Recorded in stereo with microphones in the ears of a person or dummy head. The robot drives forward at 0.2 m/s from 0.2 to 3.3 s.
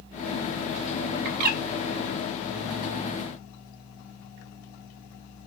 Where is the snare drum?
I don't hear a snare drum.